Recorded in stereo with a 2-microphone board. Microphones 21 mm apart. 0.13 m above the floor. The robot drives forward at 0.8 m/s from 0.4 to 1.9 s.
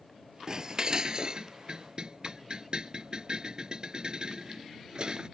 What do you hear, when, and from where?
0.5 s dishes clattering: 35° right (ahead or behind); by 5.3 s 50° right (ahead or behind)